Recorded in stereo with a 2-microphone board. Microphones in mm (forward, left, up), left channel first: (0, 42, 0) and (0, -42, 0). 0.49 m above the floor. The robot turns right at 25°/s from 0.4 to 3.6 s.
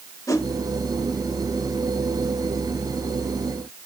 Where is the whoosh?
35° left (ahead or behind), 0.8 m; by 0.5 s 30° left (ahead or behind), 0.8 m.